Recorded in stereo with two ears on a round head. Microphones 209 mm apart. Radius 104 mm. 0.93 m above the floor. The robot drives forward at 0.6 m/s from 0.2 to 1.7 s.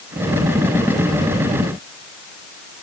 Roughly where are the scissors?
I don't hear scissors.